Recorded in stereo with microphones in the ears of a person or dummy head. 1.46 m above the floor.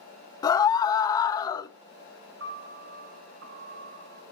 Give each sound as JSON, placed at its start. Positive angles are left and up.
{"t": 0.4, "sound": "a scream", "side_deg": 20, "distance_m": 0.8}
{"t": 2.4, "sound": "a piano", "side_deg": -75, "distance_m": 7.0}